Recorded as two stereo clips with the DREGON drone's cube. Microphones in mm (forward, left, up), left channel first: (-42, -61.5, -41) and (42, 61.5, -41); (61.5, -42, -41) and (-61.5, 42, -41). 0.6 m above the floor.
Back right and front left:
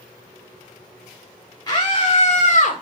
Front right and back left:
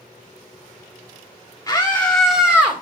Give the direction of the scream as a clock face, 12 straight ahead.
3 o'clock.